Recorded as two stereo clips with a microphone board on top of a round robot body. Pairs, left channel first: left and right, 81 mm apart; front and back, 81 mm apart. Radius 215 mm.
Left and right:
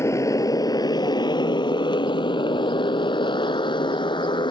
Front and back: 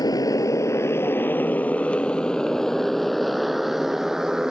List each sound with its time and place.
0.0 s a motorcycle: 35° left; by 4.5 s 95° left